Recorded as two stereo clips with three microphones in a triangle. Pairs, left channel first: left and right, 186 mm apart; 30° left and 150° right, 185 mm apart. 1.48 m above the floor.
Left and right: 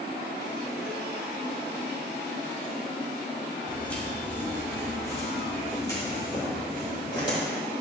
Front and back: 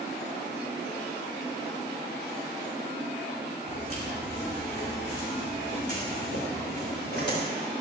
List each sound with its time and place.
3.7 s footsteps: 5° left, 4.5 m; by 7.4 s 25° left, 7 m